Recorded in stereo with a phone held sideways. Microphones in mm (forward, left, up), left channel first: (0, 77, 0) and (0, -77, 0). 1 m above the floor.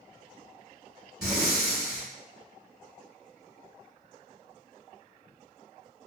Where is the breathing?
5° right (ahead or behind), 1.9 m.